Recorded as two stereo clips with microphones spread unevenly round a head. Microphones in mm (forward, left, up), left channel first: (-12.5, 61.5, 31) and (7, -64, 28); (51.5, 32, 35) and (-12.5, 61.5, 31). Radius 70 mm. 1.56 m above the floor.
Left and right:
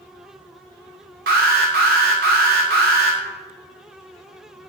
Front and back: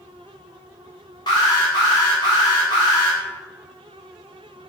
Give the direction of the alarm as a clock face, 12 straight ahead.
2 o'clock.